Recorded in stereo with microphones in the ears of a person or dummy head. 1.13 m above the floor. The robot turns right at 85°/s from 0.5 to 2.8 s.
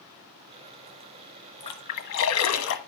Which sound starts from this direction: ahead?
A splash, at 1.6 s.